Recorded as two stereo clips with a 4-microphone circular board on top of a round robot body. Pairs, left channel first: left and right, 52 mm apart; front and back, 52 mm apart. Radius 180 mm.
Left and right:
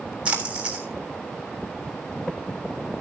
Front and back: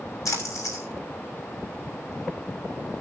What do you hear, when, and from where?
0.2 s a splash: 20° right, 3 m